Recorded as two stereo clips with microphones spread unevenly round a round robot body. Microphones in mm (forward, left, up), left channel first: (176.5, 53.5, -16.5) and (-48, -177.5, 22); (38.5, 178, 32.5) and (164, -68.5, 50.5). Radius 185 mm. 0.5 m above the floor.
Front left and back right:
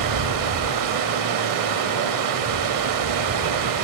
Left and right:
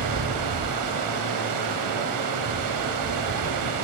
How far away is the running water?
About 0.7 m.